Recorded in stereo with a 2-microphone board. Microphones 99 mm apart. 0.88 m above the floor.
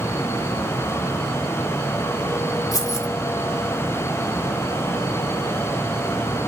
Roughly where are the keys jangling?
Left.